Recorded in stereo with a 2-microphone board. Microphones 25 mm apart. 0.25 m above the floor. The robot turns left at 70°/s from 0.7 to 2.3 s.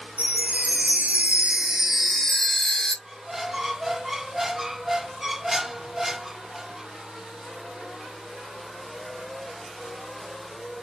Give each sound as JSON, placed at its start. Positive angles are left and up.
{"t": 0.2, "sound": "a chime", "azimuth_deg": -80, "distance_m": 1.0}
{"t": 3.0, "sound": "a squeak", "side_deg": -10, "distance_m": 0.5}